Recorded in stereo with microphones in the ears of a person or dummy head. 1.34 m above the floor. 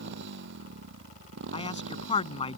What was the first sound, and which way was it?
A motorcycle, 60° right (ahead or behind).